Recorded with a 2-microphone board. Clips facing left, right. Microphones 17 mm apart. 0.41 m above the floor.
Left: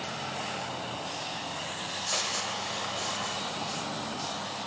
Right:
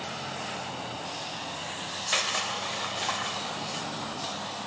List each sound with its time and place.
2.1 s crushing: 45° right (ahead or behind), 0.7 m